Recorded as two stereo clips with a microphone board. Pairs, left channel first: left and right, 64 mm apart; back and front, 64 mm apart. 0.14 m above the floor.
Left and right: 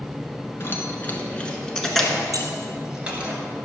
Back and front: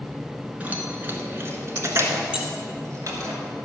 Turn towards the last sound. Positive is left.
turn(degrees=-65)